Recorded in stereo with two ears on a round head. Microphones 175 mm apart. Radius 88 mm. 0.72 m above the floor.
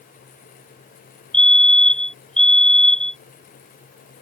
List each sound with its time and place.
1.3 s a fire alarm: 5° left (ahead or behind)